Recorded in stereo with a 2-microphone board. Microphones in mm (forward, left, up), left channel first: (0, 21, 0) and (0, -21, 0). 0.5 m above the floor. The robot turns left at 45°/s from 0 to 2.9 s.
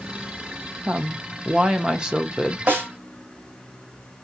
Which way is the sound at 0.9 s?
25° right (ahead or behind).